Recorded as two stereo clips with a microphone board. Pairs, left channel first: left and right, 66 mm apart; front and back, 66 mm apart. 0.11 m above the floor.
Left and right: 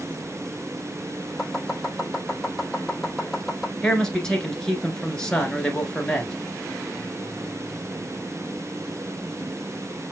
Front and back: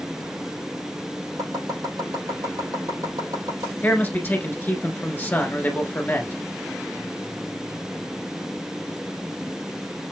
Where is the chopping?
175° right, 4 m.